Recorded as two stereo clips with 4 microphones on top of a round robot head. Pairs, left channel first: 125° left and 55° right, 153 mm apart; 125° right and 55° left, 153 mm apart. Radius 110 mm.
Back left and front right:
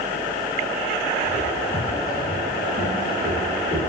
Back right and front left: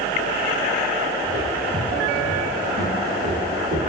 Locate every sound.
1.2 s footsteps: 85° left, 2.5 m; by 3.8 s 20° left, 3 m